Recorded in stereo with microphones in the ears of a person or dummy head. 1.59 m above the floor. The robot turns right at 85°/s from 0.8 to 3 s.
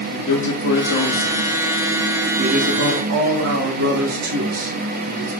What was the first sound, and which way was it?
A man speaking, 90° left.